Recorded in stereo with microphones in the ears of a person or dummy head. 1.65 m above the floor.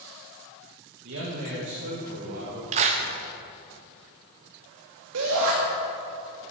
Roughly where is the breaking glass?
No breaking glass in this recording.